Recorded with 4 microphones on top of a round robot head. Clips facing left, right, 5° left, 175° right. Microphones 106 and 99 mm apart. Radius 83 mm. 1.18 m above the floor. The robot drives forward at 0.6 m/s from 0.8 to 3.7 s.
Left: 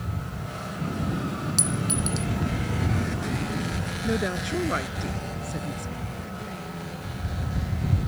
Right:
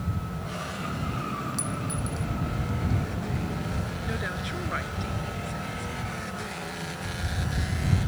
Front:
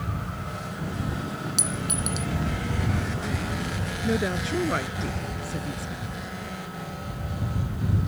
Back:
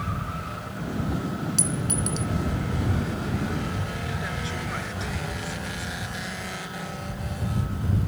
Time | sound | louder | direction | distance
1.6 | a clink | left 4 dB, back 2 dB | 75° left | ?
4.0 | a woman speaking | left 6 dB, front 6 dB | 40° left | ?